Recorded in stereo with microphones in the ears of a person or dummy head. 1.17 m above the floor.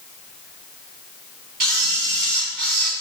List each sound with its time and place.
1.6 s a camera shutter: 55° right (ahead or behind), 6 m